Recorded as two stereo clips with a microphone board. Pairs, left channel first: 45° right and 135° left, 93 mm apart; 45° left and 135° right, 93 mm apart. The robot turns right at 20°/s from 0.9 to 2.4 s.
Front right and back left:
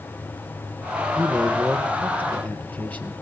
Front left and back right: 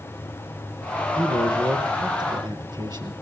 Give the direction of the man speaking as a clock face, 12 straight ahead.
5 o'clock.